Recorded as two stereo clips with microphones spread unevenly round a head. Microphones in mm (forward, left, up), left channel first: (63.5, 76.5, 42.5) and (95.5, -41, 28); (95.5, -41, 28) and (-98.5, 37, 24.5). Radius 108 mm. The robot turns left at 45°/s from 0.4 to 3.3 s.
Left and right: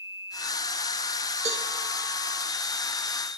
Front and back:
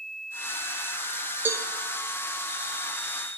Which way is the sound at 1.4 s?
120° right.